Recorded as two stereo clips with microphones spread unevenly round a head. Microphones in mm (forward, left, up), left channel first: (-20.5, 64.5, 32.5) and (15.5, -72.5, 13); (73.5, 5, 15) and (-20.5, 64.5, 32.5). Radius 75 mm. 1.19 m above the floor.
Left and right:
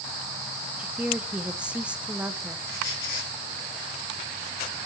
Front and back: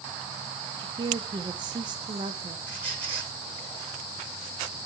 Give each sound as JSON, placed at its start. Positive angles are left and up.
{"t": 0.8, "sound": "a woman speaking", "azimuth_deg": -155, "distance_m": 0.8}
{"t": 2.7, "sound": "a squeak", "azimuth_deg": 75, "distance_m": 6.5}